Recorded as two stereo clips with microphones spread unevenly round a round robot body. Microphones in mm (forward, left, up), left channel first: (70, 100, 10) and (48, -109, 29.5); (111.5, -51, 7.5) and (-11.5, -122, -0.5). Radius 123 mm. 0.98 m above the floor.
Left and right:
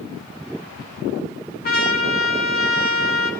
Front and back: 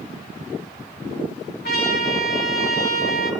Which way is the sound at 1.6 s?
40° left.